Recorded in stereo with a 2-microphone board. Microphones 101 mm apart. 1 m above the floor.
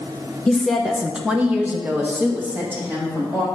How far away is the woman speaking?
About 0.7 m.